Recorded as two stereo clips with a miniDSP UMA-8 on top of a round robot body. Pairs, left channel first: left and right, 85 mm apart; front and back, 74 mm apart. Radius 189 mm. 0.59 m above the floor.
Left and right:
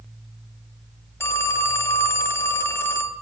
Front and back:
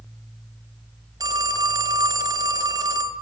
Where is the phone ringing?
150° left, 1.7 m.